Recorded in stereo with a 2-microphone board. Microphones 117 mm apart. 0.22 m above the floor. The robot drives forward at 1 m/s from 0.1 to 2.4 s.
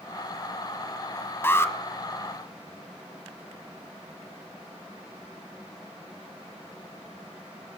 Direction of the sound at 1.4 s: 20° left (ahead or behind).